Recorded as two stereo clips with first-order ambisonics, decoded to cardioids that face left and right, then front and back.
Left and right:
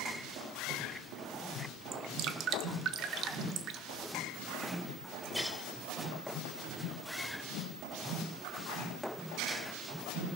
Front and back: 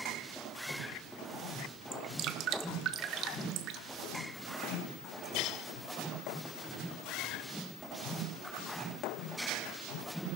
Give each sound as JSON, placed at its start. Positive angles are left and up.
{"t": 1.9, "sound": "dripping", "azimuth_deg": -135, "distance_m": 0.6}